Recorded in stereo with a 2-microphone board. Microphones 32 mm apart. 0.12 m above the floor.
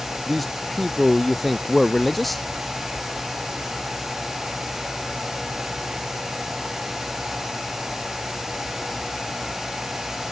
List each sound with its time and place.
0.3 s a man speaking: 5° left (ahead or behind)